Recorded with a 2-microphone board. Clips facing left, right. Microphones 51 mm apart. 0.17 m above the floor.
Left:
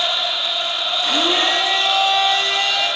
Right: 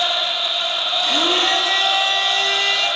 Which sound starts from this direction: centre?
A blender, at 1.0 s.